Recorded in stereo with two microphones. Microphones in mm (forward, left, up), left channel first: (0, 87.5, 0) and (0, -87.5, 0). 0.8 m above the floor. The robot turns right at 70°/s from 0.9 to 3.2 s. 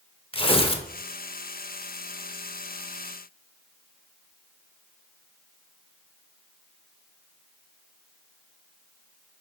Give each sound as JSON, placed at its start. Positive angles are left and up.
{"t": 0.3, "sound": "tearing paper", "side_deg": 30, "distance_m": 0.5}